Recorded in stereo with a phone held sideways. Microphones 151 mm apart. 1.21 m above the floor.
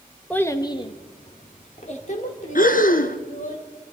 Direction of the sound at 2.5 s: 70° left (ahead or behind).